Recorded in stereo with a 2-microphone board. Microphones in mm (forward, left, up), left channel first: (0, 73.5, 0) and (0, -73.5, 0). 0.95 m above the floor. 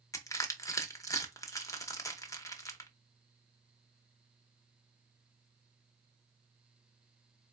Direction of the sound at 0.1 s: 20° left (ahead or behind).